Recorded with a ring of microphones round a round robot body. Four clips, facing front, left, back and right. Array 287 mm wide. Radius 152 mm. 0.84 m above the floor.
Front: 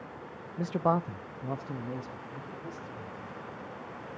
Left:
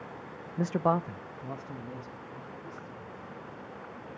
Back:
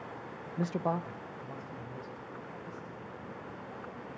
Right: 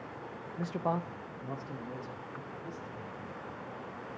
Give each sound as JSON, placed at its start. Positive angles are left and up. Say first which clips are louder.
{"t": 0.6, "sound": "a man speaking", "louder": "left 6 dB, front 4 dB", "azimuth_deg": 110, "distance_m": 0.6}